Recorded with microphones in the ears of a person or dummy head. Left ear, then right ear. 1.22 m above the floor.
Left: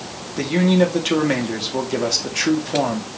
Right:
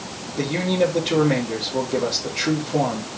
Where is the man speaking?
65° left (ahead or behind), 3 m.